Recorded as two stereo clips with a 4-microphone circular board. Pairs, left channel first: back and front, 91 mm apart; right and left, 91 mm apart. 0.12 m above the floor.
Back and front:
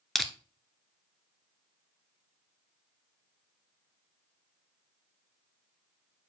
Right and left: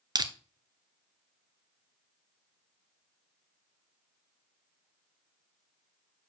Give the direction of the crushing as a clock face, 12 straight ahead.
9 o'clock.